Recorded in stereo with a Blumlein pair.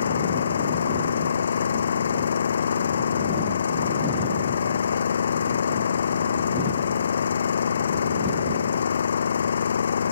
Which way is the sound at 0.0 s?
70° left.